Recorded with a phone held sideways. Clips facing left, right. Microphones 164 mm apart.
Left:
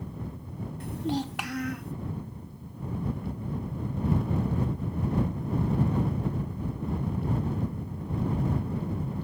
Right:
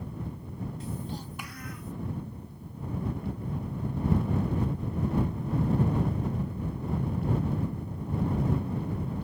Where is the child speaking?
60° left (ahead or behind); by 1.9 s 65° left (ahead or behind).